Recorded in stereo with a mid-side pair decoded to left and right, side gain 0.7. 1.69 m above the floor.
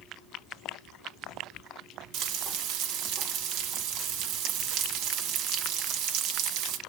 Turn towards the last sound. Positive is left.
turn(degrees=-65)